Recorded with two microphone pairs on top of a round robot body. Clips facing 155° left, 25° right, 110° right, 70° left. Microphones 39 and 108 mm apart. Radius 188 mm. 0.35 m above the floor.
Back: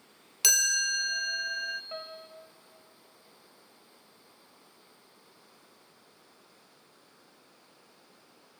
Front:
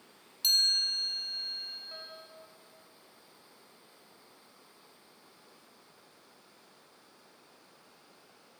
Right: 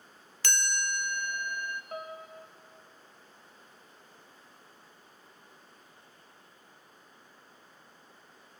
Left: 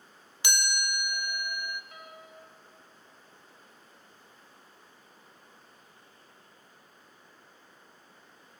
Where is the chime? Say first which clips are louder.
Back 1 dB, even; 150° left, 0.5 m.